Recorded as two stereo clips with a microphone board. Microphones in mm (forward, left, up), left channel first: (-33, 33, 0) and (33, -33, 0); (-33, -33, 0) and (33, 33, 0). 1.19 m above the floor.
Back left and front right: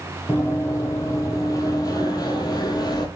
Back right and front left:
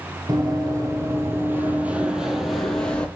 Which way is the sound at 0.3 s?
80° left.